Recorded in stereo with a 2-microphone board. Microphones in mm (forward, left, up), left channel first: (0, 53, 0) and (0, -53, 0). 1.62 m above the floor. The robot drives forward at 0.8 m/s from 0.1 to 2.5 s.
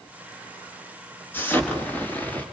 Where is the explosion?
20° left (ahead or behind), 3.5 m; by 2.5 s 15° left (ahead or behind), 4.5 m.